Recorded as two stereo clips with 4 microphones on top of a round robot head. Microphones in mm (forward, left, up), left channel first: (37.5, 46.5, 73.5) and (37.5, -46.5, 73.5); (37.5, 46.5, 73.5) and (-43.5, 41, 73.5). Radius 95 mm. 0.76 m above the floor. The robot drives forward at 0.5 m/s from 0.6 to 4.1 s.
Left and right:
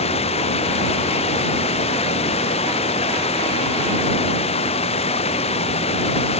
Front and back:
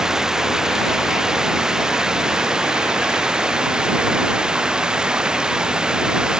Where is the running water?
100° left; by 6.4 s 105° left.